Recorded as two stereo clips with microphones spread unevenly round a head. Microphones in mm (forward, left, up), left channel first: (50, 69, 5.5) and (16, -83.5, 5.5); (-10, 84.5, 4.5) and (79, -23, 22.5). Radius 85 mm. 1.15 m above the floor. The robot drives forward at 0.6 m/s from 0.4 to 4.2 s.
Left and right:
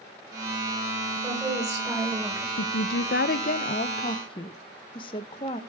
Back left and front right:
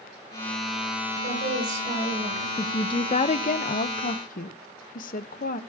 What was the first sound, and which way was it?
A woman speaking, 30° right.